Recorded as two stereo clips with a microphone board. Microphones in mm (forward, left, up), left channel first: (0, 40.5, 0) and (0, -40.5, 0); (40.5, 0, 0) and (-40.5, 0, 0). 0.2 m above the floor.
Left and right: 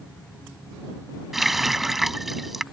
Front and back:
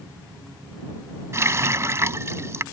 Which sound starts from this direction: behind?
A running tap, at 1.3 s.